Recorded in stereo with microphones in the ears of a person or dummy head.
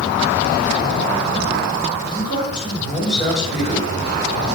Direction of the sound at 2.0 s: 25° left (ahead or behind).